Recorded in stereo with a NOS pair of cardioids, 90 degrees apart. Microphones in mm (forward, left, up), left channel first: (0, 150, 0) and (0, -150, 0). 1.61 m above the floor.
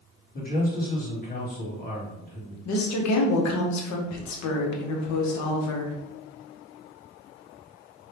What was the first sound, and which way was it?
A man speaking, 30° left.